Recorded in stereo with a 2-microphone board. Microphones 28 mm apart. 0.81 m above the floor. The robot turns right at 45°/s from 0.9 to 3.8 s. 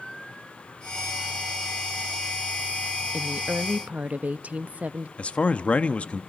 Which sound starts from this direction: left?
A man speaking, at 5.2 s.